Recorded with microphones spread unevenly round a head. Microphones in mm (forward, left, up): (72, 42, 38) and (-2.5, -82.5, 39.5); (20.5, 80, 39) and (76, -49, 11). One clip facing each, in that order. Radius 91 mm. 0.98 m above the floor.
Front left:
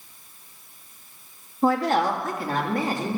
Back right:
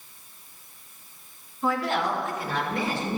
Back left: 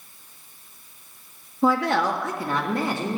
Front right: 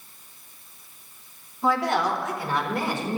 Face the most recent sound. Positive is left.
turn(degrees=115)